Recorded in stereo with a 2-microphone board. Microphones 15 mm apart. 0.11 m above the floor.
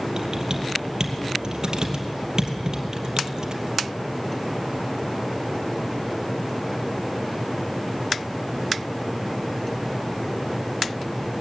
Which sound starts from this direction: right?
Typing on a keyboard, at 0.2 s.